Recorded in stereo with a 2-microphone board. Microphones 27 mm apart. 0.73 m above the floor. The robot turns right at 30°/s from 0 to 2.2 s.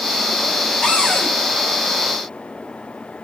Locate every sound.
0.8 s a cupboard door: 50° left (ahead or behind), 3 m; by 1.3 s 35° left (ahead or behind), 3 m